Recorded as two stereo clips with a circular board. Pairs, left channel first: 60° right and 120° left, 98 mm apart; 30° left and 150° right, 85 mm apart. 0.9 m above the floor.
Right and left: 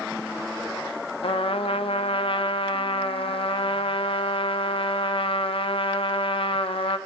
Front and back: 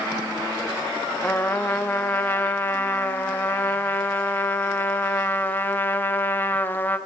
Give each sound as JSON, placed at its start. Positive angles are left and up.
{"t": 1.2, "sound": "a trumpet", "azimuth_deg": -40, "distance_m": 0.9}